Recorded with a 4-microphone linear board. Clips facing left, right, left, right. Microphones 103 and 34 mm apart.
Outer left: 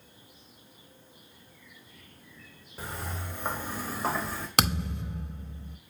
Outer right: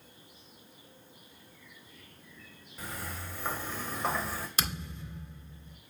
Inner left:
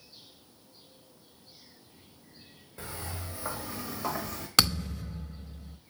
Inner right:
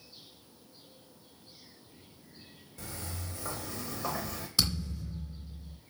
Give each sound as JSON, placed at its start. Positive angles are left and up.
{"t": 2.8, "sound": "footsteps", "side_deg": 30, "distance_m": 2.0}
{"t": 4.6, "sound": "a thud", "side_deg": 70, "distance_m": 0.7}